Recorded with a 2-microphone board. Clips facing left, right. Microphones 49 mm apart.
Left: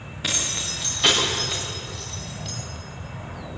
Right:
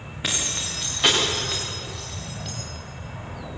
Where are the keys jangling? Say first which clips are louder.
Even; 10° right (ahead or behind), 7.5 m; by 2.5 s 5° right (ahead or behind), 9 m.